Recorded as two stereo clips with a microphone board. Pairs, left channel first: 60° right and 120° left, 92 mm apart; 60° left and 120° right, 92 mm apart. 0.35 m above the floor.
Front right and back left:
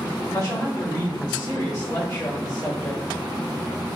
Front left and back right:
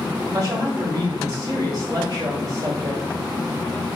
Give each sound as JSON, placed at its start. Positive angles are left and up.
{"t": 0.3, "sound": "a woman speaking", "azimuth_deg": -85, "distance_m": 1.2}